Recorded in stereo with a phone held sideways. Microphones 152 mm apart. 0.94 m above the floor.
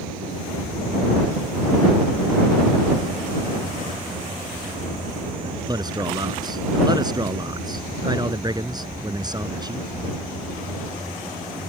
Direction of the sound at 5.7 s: 25° right (ahead or behind).